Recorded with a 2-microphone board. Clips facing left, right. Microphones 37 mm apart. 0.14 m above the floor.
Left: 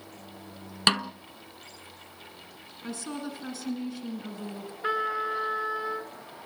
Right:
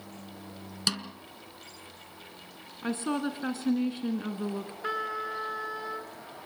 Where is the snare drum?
40° left (ahead or behind), 0.7 m.